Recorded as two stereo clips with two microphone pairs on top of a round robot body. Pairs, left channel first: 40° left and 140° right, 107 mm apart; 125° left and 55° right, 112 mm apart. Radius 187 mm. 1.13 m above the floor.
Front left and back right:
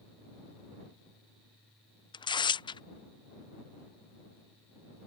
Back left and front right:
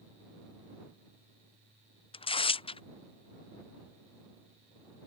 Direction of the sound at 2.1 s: 85° left.